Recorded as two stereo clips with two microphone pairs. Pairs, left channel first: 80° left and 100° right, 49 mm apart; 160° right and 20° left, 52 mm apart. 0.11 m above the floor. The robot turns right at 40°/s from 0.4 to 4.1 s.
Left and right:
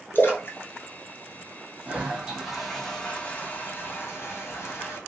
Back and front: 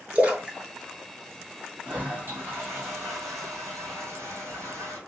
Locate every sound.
0.1 s a splash: 75° left, 0.9 m; by 0.6 s 85° left, 0.9 m
1.9 s a toilet flushing: 40° right, 1.1 m; by 5.0 s 50° left, 1.1 m